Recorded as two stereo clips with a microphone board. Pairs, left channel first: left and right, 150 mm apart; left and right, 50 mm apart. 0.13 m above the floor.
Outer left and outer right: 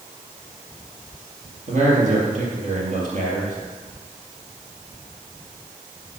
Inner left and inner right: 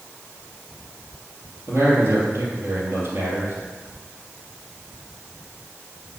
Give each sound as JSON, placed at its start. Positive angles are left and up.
{"t": 1.7, "sound": "a man speaking", "side_deg": -55, "distance_m": 3.5}